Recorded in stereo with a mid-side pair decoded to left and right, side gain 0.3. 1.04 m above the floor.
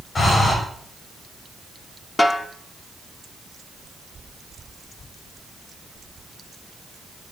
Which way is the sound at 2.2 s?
30° left.